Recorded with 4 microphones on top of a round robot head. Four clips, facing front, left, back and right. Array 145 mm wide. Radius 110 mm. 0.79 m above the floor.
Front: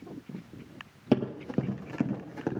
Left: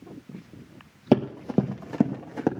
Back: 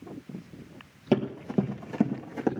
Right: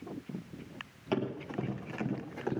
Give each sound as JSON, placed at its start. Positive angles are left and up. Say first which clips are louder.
{"t": 1.1, "sound": "running footsteps", "louder": "left 12 dB, back 1 dB", "azimuth_deg": 85, "distance_m": 1.5}